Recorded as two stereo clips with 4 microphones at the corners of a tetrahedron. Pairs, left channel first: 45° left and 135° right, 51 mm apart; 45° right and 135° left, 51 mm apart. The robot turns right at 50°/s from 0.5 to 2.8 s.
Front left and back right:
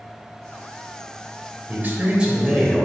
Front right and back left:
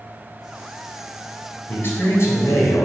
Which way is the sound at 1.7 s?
90° right.